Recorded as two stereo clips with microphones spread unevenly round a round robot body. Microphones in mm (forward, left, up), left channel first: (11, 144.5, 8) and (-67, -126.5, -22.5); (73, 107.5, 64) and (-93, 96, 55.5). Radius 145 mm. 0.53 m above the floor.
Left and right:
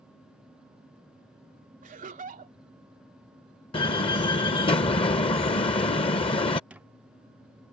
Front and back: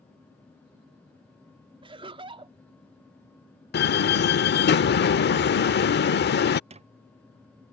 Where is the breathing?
No breathing in this recording.